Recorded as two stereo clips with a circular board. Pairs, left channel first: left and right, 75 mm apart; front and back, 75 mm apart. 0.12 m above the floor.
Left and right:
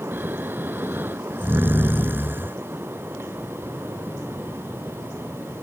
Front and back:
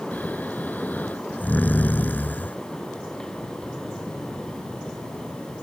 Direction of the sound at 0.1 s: 50° right.